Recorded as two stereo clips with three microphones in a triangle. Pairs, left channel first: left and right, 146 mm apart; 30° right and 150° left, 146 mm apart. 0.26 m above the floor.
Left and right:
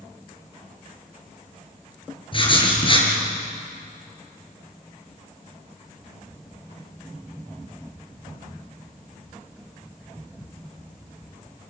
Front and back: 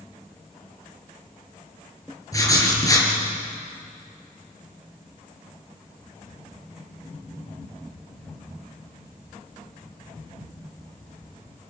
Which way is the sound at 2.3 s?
35° left.